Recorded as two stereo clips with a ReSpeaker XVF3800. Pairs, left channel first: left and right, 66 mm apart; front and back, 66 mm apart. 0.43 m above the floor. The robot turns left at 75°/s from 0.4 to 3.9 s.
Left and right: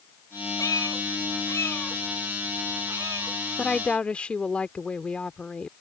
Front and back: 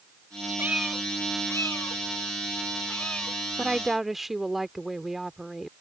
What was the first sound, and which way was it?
A cat meowing, 120° left.